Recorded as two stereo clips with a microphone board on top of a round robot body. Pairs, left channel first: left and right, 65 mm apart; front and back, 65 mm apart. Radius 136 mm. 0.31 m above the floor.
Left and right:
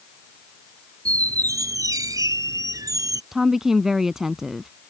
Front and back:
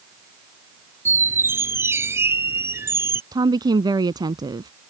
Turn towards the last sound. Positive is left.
turn(degrees=-175)